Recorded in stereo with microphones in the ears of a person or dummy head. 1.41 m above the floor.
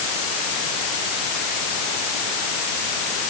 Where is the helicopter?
No helicopter in this recording.